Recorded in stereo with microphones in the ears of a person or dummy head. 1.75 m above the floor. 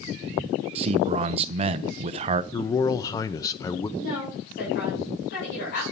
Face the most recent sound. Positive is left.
turn(degrees=55)  # may be behind; listen again after turning